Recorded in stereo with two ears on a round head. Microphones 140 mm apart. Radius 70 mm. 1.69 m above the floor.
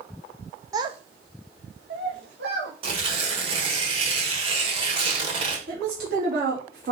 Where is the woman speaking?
70° right (ahead or behind), 3 m.